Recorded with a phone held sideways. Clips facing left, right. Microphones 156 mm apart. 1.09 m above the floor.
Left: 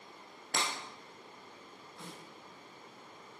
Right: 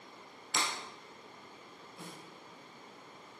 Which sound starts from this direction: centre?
A snare drum, at 2.0 s.